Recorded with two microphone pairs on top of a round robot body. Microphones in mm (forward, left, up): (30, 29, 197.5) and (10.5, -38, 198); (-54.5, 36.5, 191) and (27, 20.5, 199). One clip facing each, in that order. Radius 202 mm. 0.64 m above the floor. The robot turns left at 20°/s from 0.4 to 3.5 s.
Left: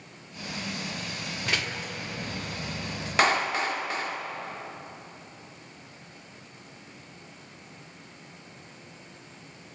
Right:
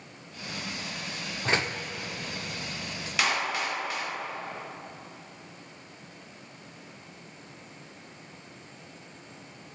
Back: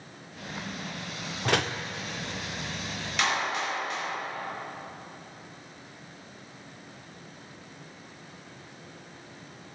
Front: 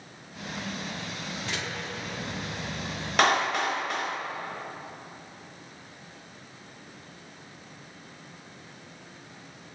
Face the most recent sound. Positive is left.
turn(degrees=25)